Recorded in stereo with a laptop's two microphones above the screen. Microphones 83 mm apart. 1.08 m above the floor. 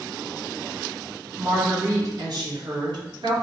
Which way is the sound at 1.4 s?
25° right (ahead or behind).